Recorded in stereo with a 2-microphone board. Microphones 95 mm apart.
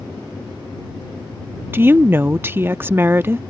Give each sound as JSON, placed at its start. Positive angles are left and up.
{"t": 1.7, "sound": "a woman speaking", "side_deg": -25}